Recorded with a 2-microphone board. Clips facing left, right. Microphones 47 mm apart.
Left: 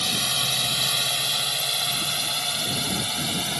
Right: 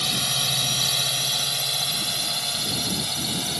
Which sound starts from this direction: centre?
A drone, at 0.0 s.